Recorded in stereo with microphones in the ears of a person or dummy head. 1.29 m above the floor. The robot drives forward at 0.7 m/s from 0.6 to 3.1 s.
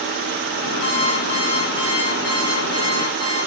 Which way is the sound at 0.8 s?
35° left (ahead or behind).